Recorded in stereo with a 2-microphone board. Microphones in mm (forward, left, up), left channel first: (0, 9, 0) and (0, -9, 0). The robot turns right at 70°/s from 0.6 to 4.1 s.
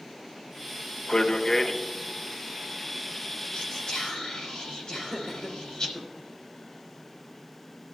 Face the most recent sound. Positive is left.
turn(degrees=30)  # may be behind; listen again after turning